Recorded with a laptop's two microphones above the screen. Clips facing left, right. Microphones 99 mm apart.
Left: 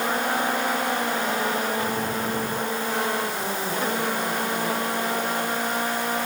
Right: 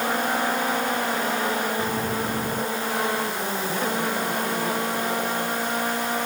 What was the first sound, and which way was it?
Only background noise.